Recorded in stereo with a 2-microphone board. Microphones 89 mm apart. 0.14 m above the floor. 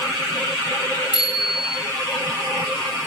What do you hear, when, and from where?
1.1 s a bicycle bell: 60° left (ahead or behind), 10 m